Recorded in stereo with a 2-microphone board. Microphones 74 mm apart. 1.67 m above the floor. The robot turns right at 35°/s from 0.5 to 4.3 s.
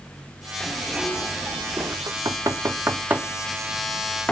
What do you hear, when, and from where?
0.6 s a zipper: 175° left, 2.5 m; by 2.0 s 135° right, 2.5 m
2.1 s knocking: 60° right (ahead or behind), 0.8 m; by 4.3 s 15° left (ahead or behind), 0.8 m